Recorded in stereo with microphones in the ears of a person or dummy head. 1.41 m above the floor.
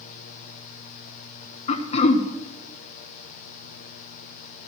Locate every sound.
1.7 s throat clearing: 35° left (ahead or behind), 0.9 m